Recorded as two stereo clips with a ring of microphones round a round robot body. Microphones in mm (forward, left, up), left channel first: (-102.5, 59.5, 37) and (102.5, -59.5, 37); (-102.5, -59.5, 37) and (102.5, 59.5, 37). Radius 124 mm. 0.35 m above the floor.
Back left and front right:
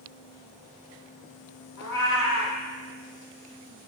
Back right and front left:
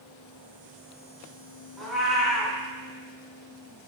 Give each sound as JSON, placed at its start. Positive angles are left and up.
{"t": 1.8, "sound": "a cat meowing", "azimuth_deg": 120, "distance_m": 1.7}